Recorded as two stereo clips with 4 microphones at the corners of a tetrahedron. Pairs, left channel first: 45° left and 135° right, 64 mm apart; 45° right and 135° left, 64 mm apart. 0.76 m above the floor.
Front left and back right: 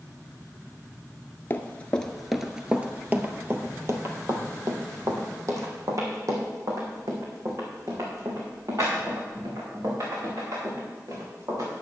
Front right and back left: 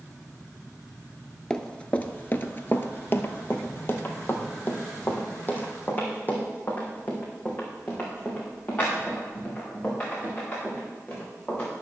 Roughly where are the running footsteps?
Ahead.